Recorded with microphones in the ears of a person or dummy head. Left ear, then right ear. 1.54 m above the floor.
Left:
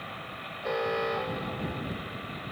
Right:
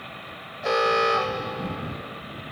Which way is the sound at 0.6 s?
55° right (ahead or behind).